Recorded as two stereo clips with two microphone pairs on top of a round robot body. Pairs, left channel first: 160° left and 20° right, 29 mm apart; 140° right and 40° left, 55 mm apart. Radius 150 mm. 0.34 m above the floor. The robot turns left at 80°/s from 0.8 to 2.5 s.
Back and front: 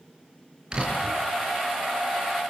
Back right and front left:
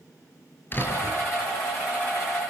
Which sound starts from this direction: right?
A door slam, at 0.7 s.